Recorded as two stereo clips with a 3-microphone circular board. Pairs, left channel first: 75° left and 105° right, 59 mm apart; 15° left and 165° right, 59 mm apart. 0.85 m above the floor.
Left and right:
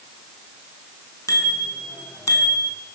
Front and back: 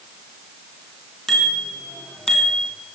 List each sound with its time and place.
1.3 s a bicycle bell: 100° left, 7 m; by 2.7 s 90° left, 5 m